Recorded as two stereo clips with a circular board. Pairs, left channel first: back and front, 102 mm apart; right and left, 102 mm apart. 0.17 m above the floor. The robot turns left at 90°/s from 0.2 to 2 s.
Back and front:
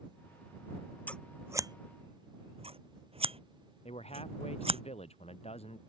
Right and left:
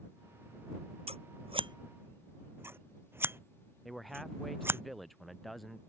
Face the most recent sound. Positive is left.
turn(degrees=180)